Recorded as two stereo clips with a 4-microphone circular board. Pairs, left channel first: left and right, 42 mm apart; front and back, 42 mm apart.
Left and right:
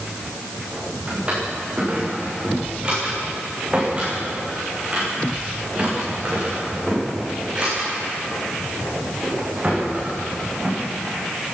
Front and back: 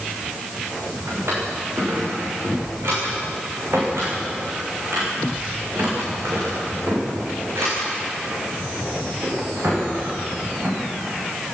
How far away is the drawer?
About 8 m.